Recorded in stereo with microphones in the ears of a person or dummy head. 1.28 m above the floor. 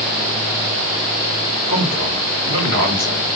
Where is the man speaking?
40° right (ahead or behind), 5 m.